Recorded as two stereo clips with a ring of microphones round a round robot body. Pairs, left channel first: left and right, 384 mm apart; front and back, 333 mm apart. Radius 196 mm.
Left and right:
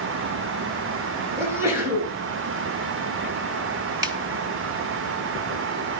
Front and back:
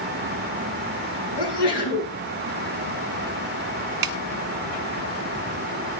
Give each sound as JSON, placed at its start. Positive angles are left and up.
{"t": 1.4, "sound": "a sneeze", "azimuth_deg": -5, "distance_m": 10.0}
{"t": 4.0, "sound": "a snare drum", "azimuth_deg": -170, "distance_m": 1.4}